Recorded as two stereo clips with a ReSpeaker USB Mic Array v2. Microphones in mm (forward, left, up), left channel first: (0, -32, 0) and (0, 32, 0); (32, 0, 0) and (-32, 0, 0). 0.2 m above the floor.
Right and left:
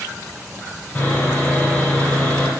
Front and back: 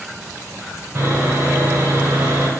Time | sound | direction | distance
0.9 | sawing | 145° right | 0.7 m